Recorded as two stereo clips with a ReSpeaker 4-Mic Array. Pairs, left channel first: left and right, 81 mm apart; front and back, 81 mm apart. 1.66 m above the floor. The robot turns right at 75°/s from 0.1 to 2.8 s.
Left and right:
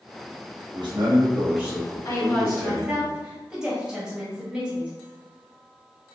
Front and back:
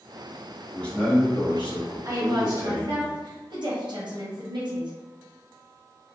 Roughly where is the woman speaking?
Behind left.